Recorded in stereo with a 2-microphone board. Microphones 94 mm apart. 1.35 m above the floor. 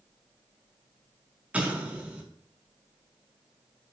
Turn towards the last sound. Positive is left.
turn(degrees=-15)  # may be behind; listen again after turning